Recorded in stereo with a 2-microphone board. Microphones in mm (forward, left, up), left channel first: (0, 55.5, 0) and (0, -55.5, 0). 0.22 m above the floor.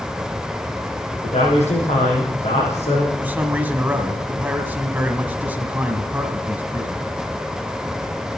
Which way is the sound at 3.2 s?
15° right (ahead or behind).